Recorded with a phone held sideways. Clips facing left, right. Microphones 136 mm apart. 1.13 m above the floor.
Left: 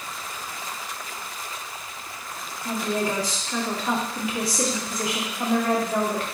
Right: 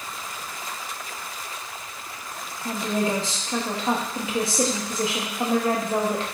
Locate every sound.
2.6 s a woman speaking: 25° right (ahead or behind), 1.1 m